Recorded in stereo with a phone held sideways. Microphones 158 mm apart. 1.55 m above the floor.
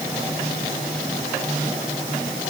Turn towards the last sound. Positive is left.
No sound to turn to.